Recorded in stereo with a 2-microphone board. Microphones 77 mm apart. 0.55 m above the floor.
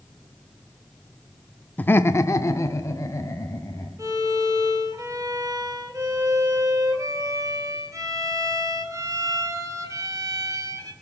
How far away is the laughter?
About 0.6 m.